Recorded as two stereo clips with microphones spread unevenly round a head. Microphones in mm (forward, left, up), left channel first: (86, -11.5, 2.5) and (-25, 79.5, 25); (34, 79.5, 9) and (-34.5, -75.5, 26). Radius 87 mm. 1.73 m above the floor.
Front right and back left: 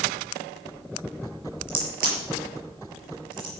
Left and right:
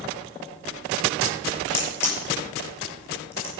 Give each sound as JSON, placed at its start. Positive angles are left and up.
{"t": 1.7, "sound": "a crack", "azimuth_deg": 145, "distance_m": 5.0}